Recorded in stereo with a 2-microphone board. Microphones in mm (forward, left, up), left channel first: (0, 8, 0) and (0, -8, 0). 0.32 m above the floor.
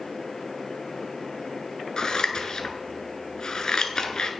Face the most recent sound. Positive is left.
turn(degrees=55)  # may be behind; listen again after turning